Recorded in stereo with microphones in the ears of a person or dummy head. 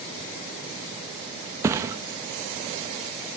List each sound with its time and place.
1.6 s a thud: 20° right (ahead or behind), 1.1 m